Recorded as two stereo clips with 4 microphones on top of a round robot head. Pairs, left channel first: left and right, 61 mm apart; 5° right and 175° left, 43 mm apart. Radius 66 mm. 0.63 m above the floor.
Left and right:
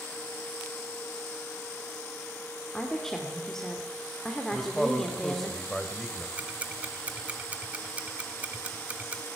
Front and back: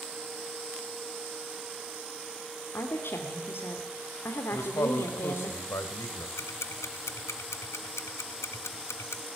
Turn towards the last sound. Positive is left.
turn(degrees=-20)